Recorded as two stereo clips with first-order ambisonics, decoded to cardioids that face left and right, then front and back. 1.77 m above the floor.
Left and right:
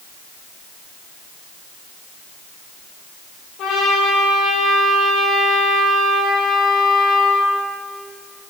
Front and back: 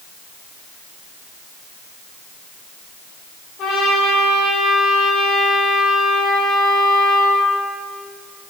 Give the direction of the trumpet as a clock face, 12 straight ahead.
10 o'clock.